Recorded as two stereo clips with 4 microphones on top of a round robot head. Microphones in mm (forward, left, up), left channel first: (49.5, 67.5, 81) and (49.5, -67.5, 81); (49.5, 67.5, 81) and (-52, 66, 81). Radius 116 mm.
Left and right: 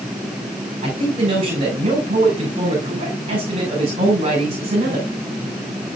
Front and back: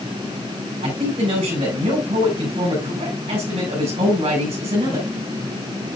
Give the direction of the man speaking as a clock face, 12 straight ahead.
4 o'clock.